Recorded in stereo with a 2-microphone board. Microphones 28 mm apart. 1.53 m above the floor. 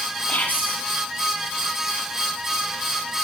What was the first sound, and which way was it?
Whispering, 65° left (ahead or behind).